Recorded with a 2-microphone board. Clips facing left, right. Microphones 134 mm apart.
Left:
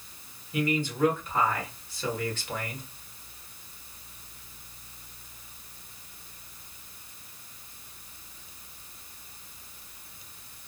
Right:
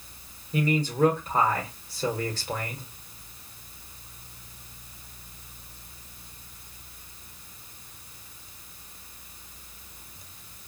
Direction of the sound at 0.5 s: 40° right (ahead or behind).